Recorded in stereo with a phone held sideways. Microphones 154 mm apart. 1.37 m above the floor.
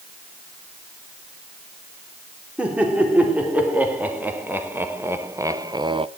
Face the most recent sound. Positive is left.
turn(degrees=-40)  # may be behind; listen again after turning